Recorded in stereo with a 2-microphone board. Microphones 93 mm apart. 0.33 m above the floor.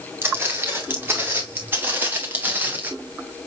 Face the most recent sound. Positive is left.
turn(degrees=-20)  # may be behind; listen again after turning